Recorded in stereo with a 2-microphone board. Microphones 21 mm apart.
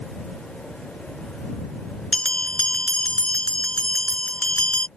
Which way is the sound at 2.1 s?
60° left (ahead or behind).